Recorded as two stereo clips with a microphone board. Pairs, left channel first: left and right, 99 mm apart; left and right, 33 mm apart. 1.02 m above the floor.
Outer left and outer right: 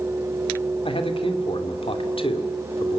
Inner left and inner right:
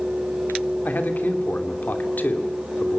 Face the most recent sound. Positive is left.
turn(degrees=65)  # may be behind; listen again after turning